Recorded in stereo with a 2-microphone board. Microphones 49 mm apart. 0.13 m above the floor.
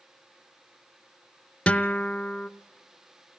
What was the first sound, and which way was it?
A guitar, 25° left (ahead or behind).